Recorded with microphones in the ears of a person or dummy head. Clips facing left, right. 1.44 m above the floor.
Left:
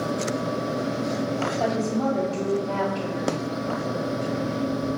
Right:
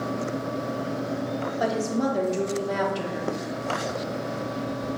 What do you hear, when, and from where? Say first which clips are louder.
1.6 s a woman speaking: right 1 dB; 15° right (ahead or behind), 0.8 m